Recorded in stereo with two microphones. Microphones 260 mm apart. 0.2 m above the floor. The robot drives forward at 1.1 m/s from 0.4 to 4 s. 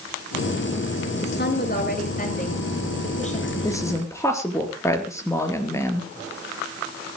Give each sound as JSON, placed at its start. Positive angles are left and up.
{"t": 1.2, "sound": "a woman speaking", "side_deg": 40, "distance_m": 3.5}
{"t": 3.6, "sound": "a woman speaking", "side_deg": 10, "distance_m": 3.0}